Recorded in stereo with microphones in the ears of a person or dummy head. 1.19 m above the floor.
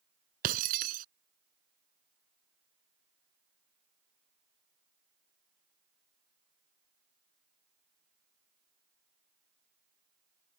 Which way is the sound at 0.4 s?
60° right (ahead or behind).